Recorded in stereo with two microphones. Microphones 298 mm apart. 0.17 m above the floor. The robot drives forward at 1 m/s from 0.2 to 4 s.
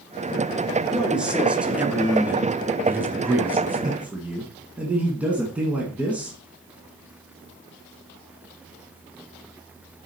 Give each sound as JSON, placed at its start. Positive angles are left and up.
{"t": 0.9, "sound": "a man speaking", "side_deg": -5, "distance_m": 2.5}